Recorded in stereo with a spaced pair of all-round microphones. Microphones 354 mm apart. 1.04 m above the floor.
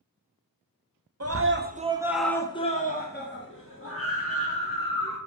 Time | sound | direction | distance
1.2 | a scream | 45° right (ahead or behind) | 0.8 m